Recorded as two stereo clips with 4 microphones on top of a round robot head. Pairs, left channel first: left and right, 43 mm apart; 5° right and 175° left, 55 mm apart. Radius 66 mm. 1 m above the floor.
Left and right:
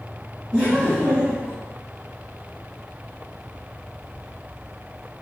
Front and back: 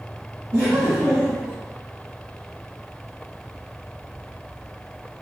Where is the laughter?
175° left, 1.2 m; by 1.6 s 140° right, 1.4 m.